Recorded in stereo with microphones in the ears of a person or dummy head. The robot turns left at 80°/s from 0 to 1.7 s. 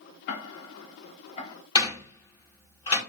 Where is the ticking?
60° left (ahead or behind), 0.6 m; by 1.6 s 20° left (ahead or behind), 0.6 m.